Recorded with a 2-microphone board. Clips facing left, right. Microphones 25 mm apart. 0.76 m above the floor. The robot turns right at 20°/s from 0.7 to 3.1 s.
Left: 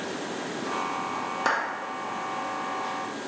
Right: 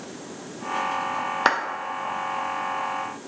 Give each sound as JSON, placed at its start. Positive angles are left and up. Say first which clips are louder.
{"t": 1.4, "sound": "a clap", "louder": "right 4 dB", "side_deg": -40, "distance_m": 0.9}